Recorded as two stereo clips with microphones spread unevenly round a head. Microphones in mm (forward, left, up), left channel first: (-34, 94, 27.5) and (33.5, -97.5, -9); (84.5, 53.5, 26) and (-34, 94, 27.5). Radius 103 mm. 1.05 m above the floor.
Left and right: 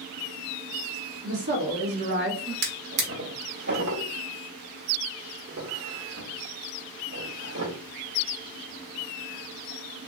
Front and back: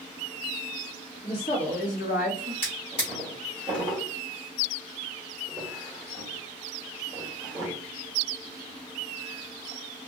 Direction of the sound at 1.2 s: 75° right.